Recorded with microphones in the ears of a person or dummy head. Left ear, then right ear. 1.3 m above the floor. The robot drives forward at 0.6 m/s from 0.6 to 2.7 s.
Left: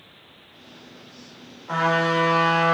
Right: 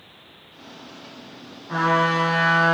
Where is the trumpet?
55° left (ahead or behind), 1.3 m; by 2.8 s 40° left (ahead or behind), 1.7 m.